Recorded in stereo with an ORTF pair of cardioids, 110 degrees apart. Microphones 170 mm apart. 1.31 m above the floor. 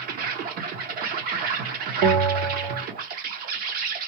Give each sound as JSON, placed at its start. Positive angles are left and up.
{"t": 0.0, "sound": "an insect", "azimuth_deg": -60, "distance_m": 0.9}
{"t": 2.0, "sound": "a bell", "azimuth_deg": -60, "distance_m": 0.9}